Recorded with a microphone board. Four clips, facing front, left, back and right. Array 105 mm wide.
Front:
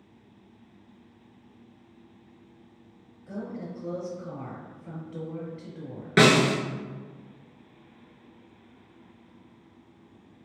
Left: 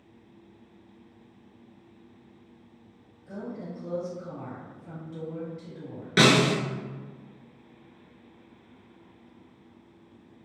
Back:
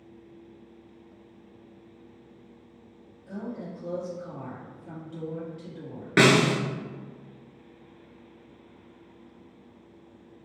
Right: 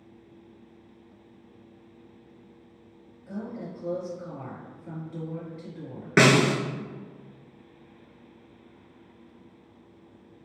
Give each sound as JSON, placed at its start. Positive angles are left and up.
{"t": 3.3, "sound": "a woman speaking", "azimuth_deg": -30, "distance_m": 1.8}
{"t": 6.2, "sound": "a snare drum", "azimuth_deg": -105, "distance_m": 0.7}